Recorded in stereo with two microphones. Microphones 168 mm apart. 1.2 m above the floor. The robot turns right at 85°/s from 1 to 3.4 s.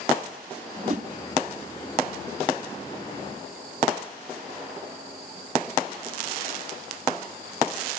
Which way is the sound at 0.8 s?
45° right (ahead or behind).